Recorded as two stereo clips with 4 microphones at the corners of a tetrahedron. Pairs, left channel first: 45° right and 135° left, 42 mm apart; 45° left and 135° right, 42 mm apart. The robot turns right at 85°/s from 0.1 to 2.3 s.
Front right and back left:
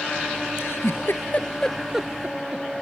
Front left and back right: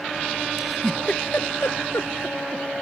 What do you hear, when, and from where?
0.6 s a giggle: 65° right; by 2.6 s 85° left